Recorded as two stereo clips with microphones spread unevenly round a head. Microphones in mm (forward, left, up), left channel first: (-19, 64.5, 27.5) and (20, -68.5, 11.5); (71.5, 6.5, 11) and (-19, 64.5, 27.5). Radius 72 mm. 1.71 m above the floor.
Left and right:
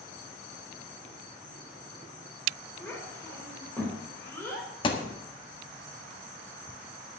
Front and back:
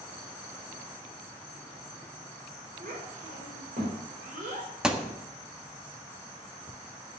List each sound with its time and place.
2.8 s a child speaking: 175° right, 4.5 m
4.8 s a thud: 80° left, 1.4 m